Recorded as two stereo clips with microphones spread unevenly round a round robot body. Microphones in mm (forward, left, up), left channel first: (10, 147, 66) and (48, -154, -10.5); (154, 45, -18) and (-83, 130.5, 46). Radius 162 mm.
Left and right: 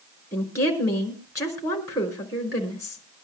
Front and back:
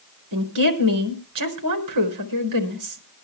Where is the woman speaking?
Straight behind, 4.5 m.